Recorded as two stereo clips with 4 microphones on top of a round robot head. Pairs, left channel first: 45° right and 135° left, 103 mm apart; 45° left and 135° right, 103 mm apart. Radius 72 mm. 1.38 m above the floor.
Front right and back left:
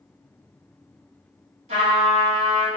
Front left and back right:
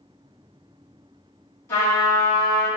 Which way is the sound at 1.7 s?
115° left.